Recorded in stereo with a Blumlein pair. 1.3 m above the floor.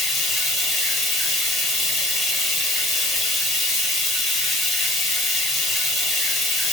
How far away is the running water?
About 1.2 m.